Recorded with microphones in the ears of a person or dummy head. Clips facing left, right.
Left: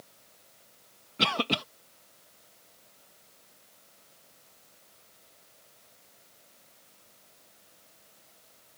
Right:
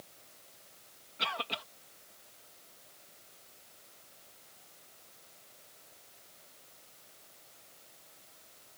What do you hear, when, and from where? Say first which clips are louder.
1.2 s a cough: left 11 dB; 65° left (ahead or behind)